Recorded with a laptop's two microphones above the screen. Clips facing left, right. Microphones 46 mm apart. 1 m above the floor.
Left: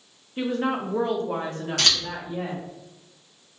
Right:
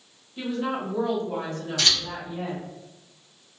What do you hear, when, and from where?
0.4 s a woman speaking: 40° left (ahead or behind), 0.6 m; by 2.6 s 30° left (ahead or behind), 1.2 m
1.8 s scissors: 60° left (ahead or behind), 0.9 m